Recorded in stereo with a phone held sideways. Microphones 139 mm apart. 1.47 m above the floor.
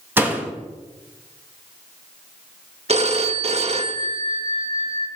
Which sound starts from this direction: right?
A phone ringing, at 2.9 s.